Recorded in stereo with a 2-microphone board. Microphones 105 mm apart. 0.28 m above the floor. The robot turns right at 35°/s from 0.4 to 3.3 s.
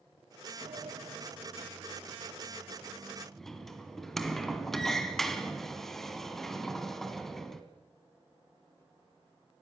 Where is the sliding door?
90° right, 2 m; by 7.6 s 5° left, 2 m.